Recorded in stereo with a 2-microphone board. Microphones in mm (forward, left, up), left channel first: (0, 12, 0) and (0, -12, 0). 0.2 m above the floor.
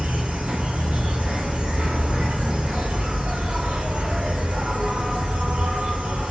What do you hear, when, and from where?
0.0 s an insect: 70° right (ahead or behind), 1.0 m